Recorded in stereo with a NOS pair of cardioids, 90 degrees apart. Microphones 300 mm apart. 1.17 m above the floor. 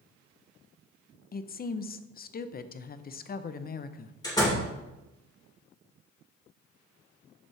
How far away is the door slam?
About 3.5 m.